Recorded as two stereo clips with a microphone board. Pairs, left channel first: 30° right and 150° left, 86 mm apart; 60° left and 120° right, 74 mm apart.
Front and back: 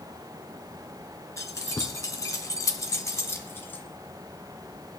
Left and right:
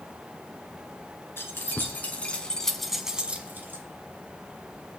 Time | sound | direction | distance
1.4 | keys jangling | 15° left | 1.7 m